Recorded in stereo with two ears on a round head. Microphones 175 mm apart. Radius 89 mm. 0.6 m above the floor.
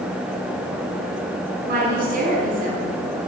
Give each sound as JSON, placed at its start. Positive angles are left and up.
{"t": 1.6, "sound": "a woman speaking", "side_deg": -50, "distance_m": 4.5}